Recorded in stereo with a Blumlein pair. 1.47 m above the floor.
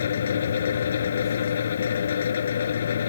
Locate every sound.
0.0 s a fan: 65° left